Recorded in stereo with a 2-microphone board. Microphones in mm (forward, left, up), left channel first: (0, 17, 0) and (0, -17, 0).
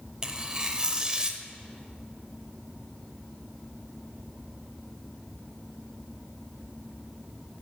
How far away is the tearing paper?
About 0.7 m.